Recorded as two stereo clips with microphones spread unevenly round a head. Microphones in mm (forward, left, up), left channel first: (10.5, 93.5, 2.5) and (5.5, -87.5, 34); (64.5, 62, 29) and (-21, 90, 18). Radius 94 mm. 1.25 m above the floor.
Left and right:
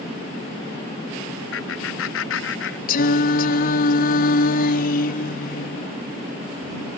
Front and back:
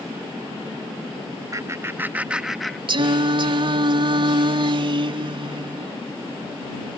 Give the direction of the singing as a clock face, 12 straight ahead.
8 o'clock.